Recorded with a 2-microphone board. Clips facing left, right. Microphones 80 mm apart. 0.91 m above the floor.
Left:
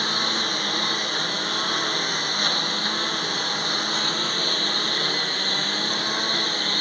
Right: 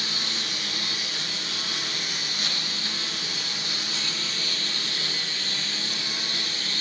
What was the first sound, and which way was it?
A lawn mower, 50° left (ahead or behind).